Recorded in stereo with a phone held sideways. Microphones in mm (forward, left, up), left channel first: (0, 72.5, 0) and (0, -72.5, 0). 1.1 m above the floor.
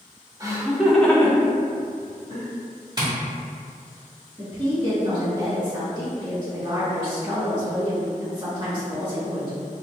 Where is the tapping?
30° right (ahead or behind), 1.2 m.